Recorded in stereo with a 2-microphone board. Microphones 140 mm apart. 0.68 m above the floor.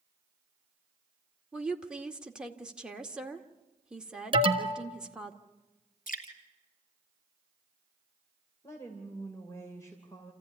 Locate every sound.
1.5 s a woman speaking: 5° right (ahead or behind), 1.8 m
4.3 s an alarm: 35° right (ahead or behind), 1.7 m
6.1 s dripping: 70° left (ahead or behind), 3 m
8.6 s a woman speaking: 20° left (ahead or behind), 3 m